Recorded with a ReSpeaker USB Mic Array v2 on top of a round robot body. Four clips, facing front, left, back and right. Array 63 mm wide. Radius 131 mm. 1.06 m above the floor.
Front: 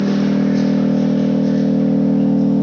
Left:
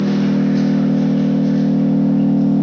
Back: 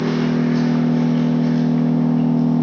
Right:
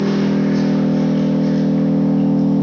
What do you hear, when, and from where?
0.0 s an engine running: 155° right, 2 m